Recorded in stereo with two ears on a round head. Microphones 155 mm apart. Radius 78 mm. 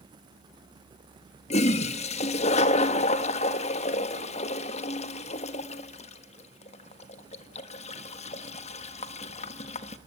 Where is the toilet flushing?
40° left (ahead or behind), 1.4 m.